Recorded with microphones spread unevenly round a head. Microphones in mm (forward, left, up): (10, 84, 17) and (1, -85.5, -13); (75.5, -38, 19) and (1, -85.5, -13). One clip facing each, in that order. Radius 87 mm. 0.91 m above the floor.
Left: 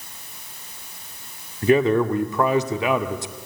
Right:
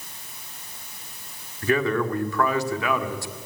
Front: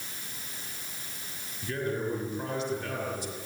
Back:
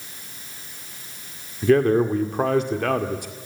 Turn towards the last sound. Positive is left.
turn(degrees=160)